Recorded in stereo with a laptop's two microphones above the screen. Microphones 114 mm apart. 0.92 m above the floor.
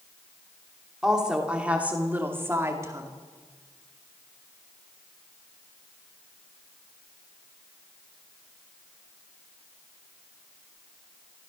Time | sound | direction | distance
1.0 | a woman speaking | 5° right (ahead or behind) | 2.5 m